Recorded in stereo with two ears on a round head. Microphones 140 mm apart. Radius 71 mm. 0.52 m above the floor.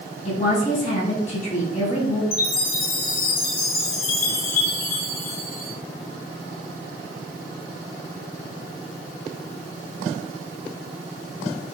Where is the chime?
70° left (ahead or behind), 2 m.